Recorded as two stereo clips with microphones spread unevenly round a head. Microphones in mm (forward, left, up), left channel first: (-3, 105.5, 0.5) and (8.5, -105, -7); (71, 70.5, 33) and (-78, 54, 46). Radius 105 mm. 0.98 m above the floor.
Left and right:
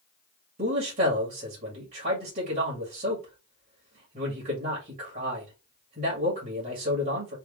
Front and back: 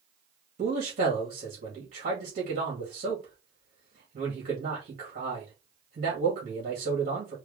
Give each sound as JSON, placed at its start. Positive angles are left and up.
{"t": 0.6, "sound": "a man speaking", "azimuth_deg": -135, "distance_m": 1.8}